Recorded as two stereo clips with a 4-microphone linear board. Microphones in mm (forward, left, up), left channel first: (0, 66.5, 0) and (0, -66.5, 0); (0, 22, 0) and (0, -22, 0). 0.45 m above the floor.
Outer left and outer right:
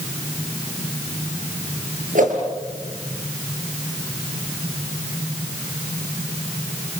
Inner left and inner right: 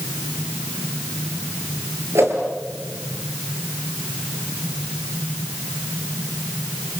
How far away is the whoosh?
About 6 m.